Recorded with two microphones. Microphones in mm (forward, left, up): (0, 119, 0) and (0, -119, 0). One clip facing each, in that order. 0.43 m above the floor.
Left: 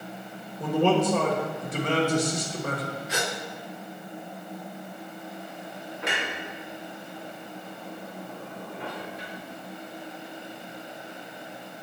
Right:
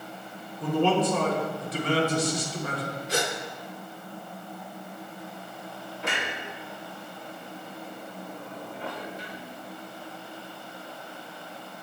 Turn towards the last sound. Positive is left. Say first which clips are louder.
# left 1 dB
turn(degrees=75)  # may be behind; listen again after turning